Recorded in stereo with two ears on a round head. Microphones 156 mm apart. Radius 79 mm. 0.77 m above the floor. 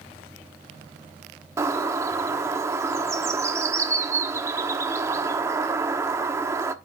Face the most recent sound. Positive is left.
turn(degrees=-15)  # may be behind; listen again after turning